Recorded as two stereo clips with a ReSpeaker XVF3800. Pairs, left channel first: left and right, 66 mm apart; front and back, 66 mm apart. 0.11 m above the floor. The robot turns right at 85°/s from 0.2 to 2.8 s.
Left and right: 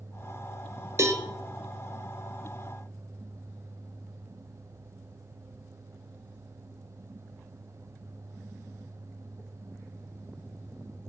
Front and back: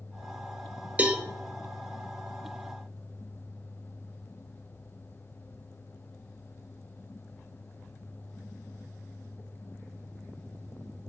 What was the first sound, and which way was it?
A cowbell, 120° right.